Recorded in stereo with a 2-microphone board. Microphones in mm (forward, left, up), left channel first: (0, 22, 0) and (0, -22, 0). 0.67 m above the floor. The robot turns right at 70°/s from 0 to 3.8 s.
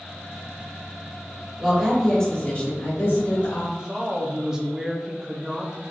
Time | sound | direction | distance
1.6 | a woman speaking | 20° right | 2.0 m
3.7 | a woman speaking | 15° right (ahead or behind) | 0.7 m